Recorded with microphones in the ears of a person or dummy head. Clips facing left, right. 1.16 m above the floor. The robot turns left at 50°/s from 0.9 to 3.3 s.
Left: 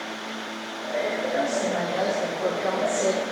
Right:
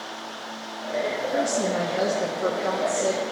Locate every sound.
1.3 s a woman speaking: 125° right, 0.9 m; by 3.2 s 140° left, 0.9 m